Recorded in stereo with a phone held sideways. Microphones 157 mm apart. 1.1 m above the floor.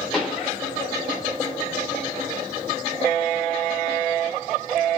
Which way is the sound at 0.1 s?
Centre (ahead or behind).